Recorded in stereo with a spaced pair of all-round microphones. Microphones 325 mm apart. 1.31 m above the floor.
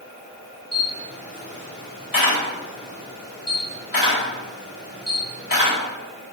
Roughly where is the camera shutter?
Left.